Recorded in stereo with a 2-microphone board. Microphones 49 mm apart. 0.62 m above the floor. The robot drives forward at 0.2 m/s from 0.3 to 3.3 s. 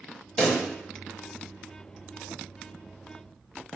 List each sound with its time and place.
0.4 s a pop: 15° left (ahead or behind), 1.3 m